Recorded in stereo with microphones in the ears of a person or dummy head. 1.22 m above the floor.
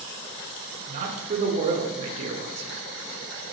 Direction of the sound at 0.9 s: 35° right (ahead or behind).